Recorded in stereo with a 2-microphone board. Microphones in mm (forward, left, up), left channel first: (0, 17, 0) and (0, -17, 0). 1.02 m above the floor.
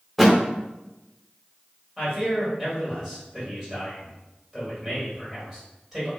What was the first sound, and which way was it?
A thud, centre (ahead or behind).